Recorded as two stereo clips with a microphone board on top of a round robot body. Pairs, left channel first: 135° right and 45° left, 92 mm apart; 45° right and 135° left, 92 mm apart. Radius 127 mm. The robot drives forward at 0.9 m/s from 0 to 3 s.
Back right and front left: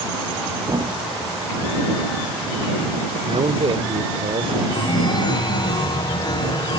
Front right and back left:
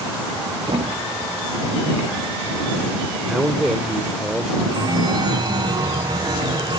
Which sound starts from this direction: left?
A thud, at 0.7 s.